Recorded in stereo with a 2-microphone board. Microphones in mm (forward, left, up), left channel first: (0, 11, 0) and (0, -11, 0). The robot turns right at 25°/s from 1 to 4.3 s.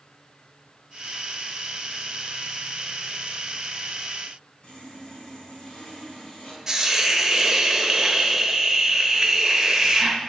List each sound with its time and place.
4.6 s sawing: 45° left (ahead or behind), 3.5 m
6.7 s a hiss: 20° right (ahead or behind), 1.1 m